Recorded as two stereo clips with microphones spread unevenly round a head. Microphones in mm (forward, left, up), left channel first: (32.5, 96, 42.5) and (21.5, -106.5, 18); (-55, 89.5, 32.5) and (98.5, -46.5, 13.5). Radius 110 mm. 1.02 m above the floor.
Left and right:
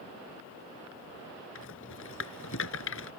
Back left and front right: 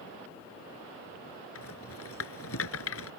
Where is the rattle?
120° left.